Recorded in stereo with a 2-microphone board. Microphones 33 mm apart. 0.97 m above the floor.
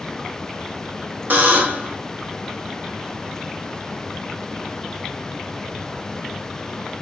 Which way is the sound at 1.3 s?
60° right (ahead or behind).